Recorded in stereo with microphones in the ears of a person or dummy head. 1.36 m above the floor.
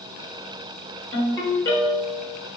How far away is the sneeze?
No sneeze in this recording.